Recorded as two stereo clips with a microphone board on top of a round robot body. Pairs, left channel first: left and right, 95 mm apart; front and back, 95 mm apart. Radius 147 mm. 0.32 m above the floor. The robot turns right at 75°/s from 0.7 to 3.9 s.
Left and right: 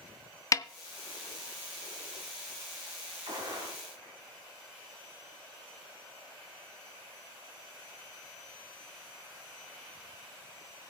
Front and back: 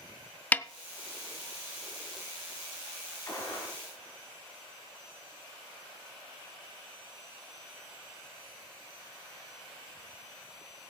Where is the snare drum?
65° left, 0.6 m.